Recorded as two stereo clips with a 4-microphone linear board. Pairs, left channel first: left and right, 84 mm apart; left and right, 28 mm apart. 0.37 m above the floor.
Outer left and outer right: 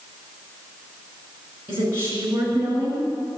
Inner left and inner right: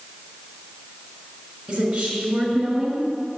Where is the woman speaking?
25° right (ahead or behind), 5.5 m.